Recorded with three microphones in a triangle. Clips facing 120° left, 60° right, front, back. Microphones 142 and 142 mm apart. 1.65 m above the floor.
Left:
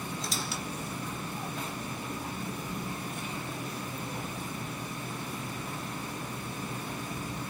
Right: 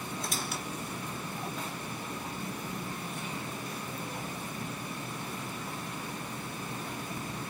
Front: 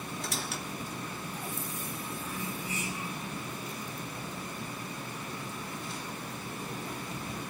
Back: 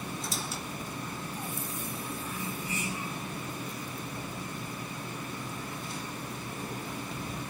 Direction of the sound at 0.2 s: 25° right.